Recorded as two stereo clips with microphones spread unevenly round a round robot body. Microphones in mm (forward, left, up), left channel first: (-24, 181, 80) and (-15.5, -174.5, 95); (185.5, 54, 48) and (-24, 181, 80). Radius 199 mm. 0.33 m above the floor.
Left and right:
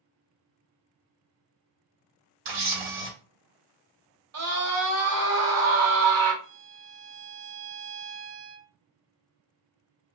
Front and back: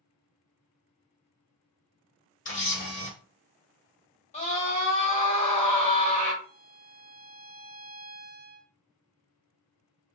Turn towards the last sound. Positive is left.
turn(degrees=-145)